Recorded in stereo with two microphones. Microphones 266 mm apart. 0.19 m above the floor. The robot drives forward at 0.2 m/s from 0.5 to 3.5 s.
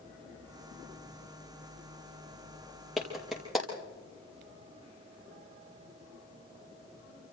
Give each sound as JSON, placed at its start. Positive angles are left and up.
{"t": 3.0, "sound": "a clap", "side_deg": 0, "distance_m": 4.5}